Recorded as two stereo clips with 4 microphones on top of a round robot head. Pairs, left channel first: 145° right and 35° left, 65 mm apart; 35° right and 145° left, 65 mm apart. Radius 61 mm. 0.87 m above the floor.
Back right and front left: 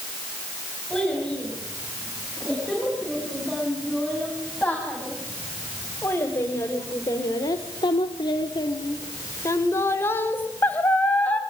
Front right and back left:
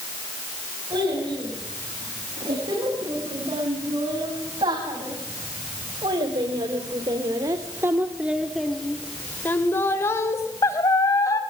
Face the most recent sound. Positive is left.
turn(degrees=-75)